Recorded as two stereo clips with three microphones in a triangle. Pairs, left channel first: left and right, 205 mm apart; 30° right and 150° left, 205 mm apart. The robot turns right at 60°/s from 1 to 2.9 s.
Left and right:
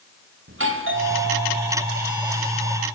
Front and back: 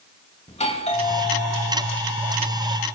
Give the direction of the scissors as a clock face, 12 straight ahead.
No scissors in this recording.